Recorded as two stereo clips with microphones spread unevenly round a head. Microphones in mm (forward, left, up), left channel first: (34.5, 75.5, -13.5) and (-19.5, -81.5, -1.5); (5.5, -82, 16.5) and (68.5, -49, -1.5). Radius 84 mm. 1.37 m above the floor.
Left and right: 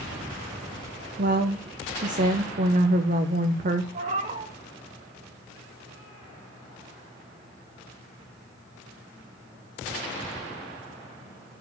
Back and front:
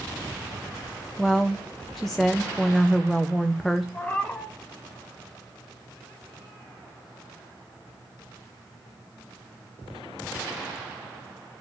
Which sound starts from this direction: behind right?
A cat meowing, at 3.9 s.